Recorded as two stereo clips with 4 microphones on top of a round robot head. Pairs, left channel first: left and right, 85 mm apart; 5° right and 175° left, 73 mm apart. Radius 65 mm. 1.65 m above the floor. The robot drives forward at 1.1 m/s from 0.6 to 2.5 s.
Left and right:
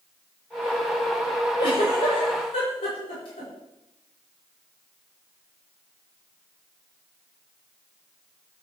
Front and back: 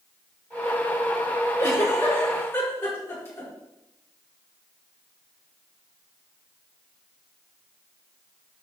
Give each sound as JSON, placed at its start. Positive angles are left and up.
{"t": 1.6, "sound": "a giggle", "azimuth_deg": 45, "distance_m": 6.0}